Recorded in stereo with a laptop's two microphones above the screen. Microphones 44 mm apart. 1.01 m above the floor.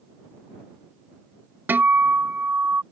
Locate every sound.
1.7 s a guitar: 55° right (ahead or behind)